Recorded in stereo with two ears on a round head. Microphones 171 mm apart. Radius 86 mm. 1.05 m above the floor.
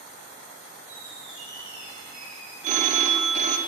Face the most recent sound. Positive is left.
turn(degrees=-40)  # may be behind; listen again after turning